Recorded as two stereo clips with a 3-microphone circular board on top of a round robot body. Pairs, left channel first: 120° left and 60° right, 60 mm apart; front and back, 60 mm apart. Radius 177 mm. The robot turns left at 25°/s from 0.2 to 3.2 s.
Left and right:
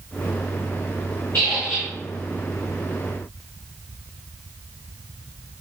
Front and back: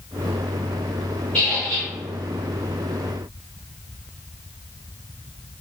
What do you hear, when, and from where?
1.3 s a squeak: 70° left, 0.7 m; by 1.9 s 55° left, 0.7 m